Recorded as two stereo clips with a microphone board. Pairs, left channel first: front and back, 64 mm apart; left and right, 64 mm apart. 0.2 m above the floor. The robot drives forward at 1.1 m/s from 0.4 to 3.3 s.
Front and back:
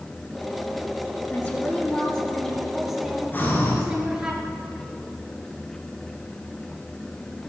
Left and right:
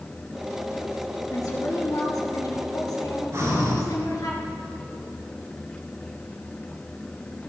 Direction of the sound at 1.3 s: 60° left.